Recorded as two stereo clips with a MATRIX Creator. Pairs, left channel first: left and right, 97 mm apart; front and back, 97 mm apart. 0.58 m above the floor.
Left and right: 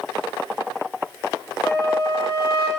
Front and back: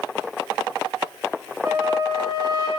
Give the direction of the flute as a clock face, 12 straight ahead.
7 o'clock.